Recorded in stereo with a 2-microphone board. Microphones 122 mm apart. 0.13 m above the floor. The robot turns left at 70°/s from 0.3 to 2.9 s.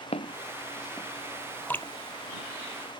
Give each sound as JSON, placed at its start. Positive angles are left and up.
{"t": 0.1, "sound": "footsteps", "side_deg": 55}
{"t": 1.7, "sound": "dripping", "side_deg": 15}